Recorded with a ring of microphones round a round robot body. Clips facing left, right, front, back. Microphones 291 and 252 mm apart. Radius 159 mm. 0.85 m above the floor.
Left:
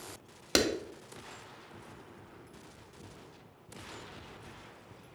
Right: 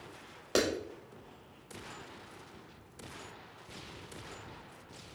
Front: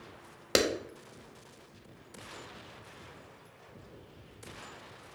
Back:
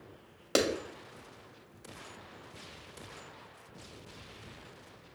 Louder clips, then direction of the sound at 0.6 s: Left 1 dB, front 1 dB; 55° left.